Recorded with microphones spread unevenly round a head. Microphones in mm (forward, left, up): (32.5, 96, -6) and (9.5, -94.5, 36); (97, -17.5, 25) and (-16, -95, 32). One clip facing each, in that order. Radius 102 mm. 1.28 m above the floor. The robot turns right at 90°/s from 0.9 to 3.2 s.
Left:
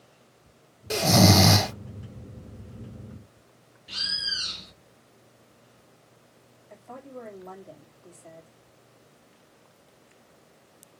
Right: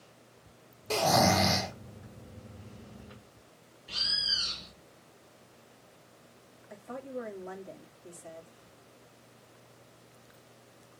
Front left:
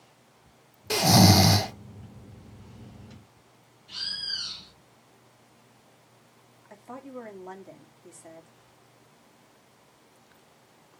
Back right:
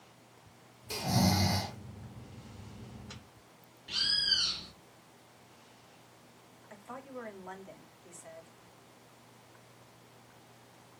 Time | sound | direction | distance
0.9 | snoring | 10° left | 0.5 m
3.9 | a bird | 160° left | 1.8 m
6.7 | a woman speaking | 20° right | 2.5 m